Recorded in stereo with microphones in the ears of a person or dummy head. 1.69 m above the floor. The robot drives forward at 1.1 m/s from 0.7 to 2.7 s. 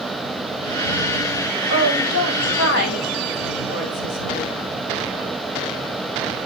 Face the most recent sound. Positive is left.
turn(degrees=80)